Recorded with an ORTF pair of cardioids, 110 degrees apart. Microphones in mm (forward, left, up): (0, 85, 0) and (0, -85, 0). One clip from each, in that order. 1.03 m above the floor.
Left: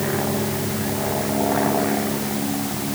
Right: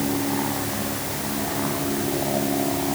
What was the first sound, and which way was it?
Only background noise.